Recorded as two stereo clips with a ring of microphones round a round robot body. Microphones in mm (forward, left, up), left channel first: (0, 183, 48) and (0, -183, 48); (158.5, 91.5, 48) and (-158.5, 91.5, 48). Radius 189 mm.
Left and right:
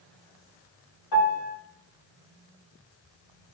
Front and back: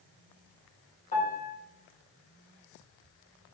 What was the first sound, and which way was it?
A piano, 65° left.